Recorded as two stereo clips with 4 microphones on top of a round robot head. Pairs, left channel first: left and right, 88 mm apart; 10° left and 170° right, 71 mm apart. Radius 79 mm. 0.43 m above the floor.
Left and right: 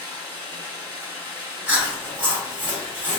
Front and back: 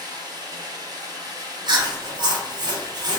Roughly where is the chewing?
Behind.